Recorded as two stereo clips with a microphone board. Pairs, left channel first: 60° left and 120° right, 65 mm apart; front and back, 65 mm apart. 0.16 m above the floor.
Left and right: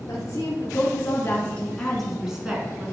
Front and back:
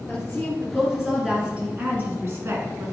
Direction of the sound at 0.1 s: 90° left.